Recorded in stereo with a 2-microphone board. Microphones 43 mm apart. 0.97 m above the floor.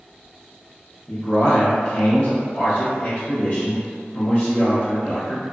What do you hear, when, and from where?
1.1 s a man speaking: 35° left (ahead or behind), 1.0 m